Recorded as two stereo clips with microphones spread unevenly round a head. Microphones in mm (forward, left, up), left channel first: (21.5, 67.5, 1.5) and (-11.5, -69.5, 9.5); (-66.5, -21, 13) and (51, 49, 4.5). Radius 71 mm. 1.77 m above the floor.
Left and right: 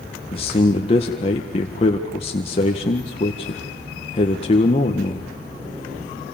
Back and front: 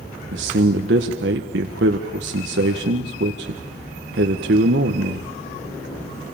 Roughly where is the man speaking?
Ahead left.